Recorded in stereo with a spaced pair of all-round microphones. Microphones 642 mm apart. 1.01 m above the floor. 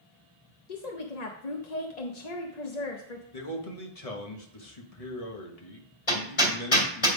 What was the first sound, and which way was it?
A woman speaking, 85° left.